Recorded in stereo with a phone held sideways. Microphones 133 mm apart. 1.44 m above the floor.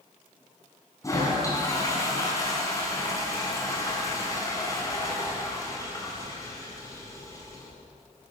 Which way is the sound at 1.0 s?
25° left (ahead or behind).